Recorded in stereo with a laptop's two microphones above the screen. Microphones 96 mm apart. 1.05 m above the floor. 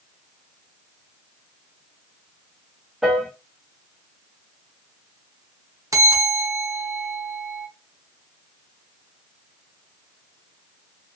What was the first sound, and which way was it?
A piano, 5° right (ahead or behind).